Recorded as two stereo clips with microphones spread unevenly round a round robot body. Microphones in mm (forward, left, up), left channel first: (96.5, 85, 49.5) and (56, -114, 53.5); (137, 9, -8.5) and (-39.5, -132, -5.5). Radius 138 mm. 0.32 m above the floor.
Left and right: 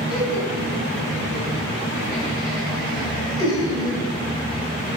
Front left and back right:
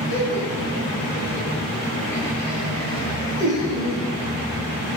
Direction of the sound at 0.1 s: 160° left.